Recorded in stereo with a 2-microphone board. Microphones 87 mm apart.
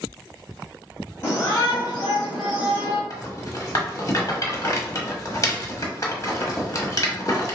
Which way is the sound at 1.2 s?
30° left (ahead or behind).